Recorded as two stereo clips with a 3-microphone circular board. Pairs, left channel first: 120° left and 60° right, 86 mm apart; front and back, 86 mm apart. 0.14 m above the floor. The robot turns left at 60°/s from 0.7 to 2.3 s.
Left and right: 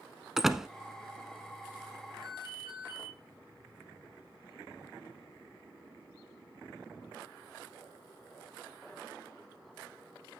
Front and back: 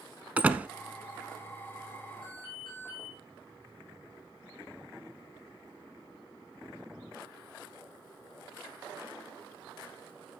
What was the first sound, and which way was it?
A door slam, 135° right.